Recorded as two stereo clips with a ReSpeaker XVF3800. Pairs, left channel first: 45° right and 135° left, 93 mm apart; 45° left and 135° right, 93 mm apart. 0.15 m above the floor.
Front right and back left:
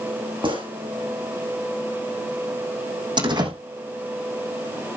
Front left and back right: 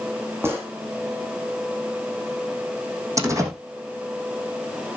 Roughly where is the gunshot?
Behind.